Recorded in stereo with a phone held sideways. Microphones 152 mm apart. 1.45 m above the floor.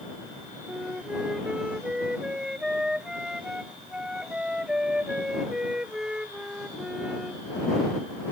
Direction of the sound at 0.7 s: 5° right (ahead or behind).